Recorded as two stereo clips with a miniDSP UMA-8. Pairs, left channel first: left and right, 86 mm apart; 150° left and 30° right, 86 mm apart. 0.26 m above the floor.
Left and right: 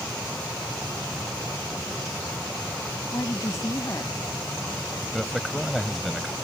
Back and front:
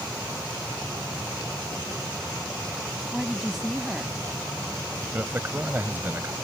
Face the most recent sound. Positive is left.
turn(degrees=5)